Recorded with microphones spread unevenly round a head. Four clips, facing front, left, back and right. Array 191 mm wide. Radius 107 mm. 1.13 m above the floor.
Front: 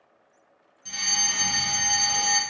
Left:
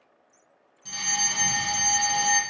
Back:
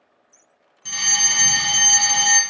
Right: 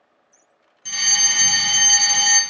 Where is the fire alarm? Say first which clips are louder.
Right 2 dB, back 5 dB; 165° right, 1.2 m.